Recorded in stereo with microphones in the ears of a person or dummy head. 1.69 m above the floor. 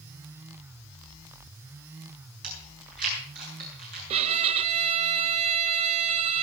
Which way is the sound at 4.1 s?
35° right (ahead or behind).